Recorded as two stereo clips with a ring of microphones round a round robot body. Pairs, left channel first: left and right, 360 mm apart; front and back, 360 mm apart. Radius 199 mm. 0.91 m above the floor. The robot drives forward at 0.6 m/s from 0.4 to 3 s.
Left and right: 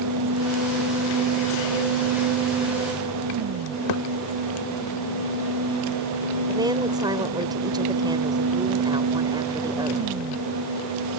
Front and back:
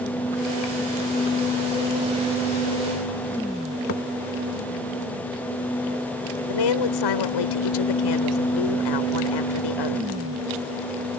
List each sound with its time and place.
3.9 s a thud: 60° left
6.5 s a woman speaking: 10° right